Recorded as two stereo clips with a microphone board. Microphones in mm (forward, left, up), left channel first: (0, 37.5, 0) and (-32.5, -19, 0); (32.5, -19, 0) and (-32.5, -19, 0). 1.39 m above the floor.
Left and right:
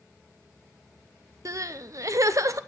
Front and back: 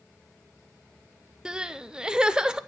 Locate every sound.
1.4 s crying: 105° right, 0.6 m